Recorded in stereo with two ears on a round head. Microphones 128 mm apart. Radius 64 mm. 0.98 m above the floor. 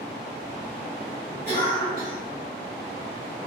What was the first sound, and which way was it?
A cough, 15° left (ahead or behind).